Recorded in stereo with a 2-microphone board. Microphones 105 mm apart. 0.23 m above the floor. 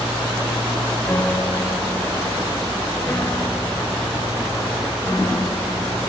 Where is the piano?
25° left (ahead or behind), 3 m.